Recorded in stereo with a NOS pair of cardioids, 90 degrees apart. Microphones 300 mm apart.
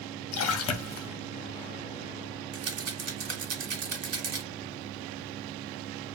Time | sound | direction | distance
0.3 | a splash | 55° left | 0.8 m
2.5 | a rattle | 55° right | 0.9 m